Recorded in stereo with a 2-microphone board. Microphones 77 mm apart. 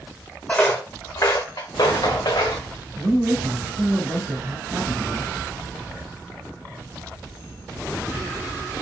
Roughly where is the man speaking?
Right.